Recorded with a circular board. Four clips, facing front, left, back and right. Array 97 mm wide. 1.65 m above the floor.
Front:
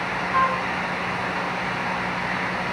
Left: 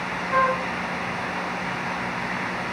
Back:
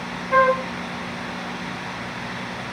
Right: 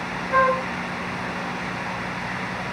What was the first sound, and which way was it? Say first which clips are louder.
A flute: right 2 dB, back 5 dB; 170° left.